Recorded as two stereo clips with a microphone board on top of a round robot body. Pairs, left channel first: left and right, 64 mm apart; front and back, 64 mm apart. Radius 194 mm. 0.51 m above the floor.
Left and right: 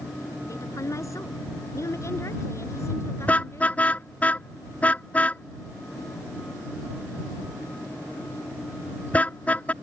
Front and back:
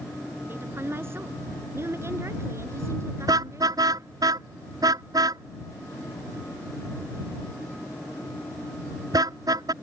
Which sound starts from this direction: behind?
A car horn, at 3.3 s.